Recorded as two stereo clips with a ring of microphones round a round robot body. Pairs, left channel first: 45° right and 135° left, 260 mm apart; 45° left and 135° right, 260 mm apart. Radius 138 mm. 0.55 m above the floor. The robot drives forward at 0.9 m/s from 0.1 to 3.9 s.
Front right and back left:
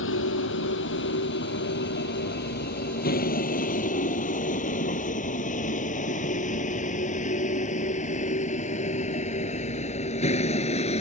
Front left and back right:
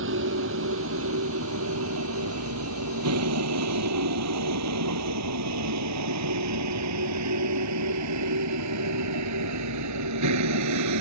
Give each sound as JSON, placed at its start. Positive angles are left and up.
{"t": 0.0, "sound": "a vehicle", "azimuth_deg": -90}